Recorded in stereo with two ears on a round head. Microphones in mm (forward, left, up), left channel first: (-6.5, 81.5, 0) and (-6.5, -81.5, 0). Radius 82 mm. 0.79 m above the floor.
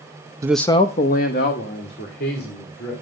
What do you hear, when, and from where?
0.4 s a man speaking: 20° right (ahead or behind), 0.6 m; by 2.9 s 60° left (ahead or behind), 4 m